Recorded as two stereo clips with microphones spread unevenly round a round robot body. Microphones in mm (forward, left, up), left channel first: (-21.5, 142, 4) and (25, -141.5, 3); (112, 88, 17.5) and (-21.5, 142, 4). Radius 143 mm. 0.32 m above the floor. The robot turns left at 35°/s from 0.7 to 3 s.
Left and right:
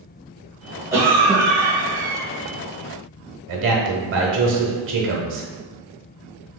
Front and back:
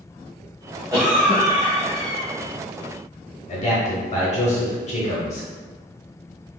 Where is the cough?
155° right, 1.6 m; by 2.3 s 160° left, 1.6 m.